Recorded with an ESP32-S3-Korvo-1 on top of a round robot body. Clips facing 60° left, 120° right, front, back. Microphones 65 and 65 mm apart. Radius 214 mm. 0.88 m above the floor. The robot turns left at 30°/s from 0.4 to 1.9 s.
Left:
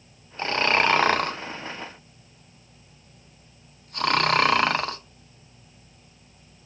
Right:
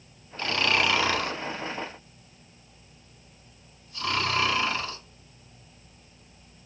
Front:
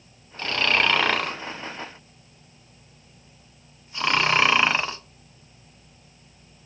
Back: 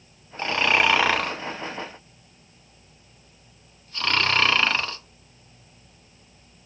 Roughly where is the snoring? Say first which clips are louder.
Left 3 dB, back 2 dB; behind left.